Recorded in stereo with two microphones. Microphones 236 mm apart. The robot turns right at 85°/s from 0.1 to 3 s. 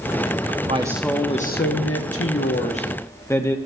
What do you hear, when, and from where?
0.7 s a woman speaking: 30° right, 0.8 m; by 3.6 s 170° left, 0.8 m